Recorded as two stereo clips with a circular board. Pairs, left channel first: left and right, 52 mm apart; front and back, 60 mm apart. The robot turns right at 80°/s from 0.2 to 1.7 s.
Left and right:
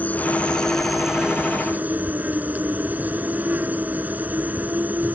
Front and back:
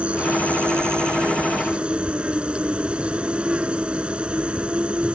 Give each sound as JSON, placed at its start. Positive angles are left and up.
{"t": 0.0, "sound": "an insect", "azimuth_deg": 120}